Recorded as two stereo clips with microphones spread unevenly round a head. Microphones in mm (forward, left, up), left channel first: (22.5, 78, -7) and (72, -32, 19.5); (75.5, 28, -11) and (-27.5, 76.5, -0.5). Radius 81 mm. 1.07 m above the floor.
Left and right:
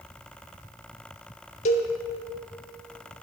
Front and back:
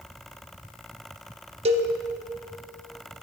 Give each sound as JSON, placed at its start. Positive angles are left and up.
{"t": 1.6, "sound": "a cowbell", "azimuth_deg": 125, "distance_m": 0.9}